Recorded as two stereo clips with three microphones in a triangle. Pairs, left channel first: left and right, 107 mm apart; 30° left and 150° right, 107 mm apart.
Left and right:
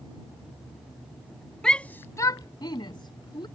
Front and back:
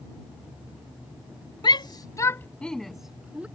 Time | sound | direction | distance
1.6 | a shout | 10° left | ?